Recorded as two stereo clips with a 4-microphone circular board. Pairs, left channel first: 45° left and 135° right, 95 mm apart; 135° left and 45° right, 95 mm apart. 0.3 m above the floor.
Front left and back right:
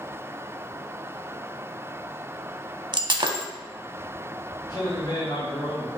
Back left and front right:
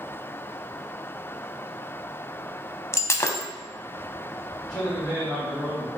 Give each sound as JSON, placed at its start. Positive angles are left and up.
{"t": 2.9, "sound": "breaking glass", "azimuth_deg": -165, "distance_m": 0.5}
{"t": 4.7, "sound": "a man speaking", "azimuth_deg": 45, "distance_m": 2.0}